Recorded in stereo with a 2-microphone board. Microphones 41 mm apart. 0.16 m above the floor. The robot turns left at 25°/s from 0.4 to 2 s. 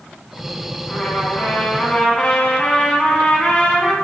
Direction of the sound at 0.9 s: 20° left (ahead or behind).